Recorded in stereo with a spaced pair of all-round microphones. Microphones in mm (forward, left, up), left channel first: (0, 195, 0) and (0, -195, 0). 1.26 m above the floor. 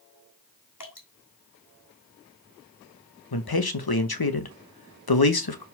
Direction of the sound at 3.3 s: 80° left.